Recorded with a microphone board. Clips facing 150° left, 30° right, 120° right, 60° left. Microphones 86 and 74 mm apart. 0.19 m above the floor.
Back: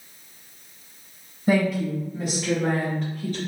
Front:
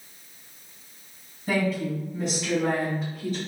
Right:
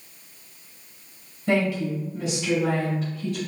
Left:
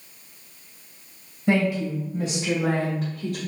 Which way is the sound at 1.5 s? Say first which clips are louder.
Back 4 dB, left 1 dB; 115° left.